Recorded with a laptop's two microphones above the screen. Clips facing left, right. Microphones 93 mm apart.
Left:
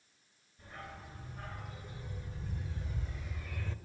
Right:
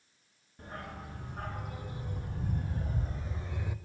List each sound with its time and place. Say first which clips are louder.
0.6 s a dog barking: right 5 dB; 65° right (ahead or behind), 3 m; by 3.8 s 10° right (ahead or behind), 0.8 m